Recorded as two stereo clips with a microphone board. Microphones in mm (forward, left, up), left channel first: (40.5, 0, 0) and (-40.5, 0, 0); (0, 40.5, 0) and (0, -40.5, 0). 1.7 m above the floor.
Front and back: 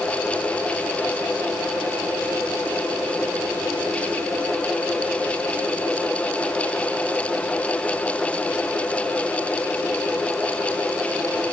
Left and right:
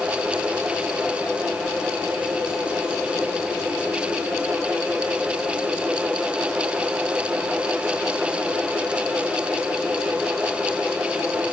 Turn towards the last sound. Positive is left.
No sound to turn to.